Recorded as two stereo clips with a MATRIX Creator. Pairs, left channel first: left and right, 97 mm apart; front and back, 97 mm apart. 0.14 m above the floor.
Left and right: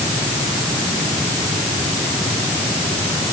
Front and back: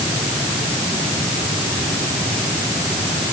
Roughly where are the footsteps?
I don't hear footsteps.